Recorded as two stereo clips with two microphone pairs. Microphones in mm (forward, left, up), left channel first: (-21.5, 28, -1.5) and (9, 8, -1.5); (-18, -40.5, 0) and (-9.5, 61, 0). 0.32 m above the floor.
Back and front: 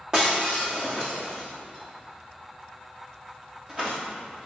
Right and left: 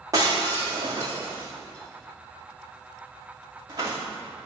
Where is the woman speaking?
No woman speaking in this recording.